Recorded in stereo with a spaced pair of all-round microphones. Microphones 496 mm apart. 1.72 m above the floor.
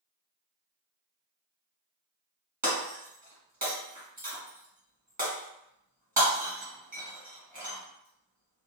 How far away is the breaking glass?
About 1.7 m.